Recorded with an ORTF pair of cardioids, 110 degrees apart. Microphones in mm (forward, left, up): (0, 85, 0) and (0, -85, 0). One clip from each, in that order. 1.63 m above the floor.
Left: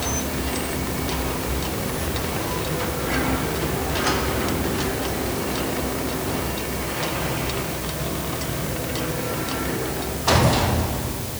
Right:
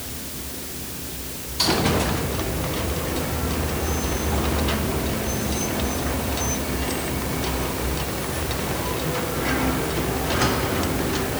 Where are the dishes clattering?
No dishes clattering in this recording.